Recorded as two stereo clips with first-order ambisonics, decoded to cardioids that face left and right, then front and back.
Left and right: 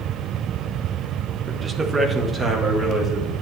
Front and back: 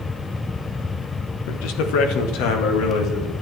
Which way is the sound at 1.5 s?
20° right.